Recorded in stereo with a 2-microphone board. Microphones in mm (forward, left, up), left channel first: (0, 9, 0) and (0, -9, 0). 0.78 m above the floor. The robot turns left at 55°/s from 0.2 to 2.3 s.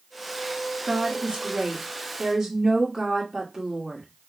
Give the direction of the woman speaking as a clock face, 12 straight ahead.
2 o'clock.